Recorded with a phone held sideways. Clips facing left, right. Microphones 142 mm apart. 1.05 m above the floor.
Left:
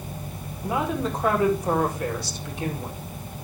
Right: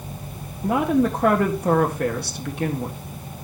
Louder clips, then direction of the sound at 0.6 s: Right 7 dB; 60° right (ahead or behind).